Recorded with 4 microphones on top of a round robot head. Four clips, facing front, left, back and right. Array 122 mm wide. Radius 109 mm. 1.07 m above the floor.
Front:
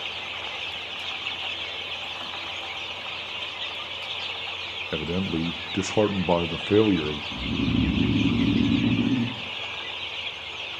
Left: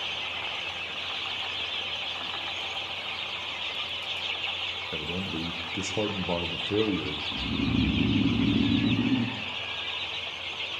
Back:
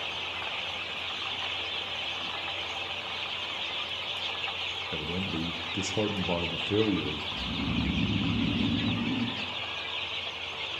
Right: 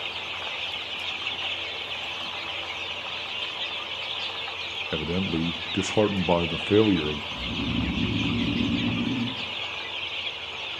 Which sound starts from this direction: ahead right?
A man speaking, at 4.9 s.